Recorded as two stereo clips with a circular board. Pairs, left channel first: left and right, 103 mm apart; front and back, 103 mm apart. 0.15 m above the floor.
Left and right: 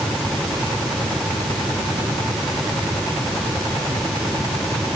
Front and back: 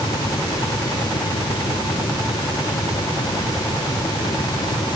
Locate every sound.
Only background noise.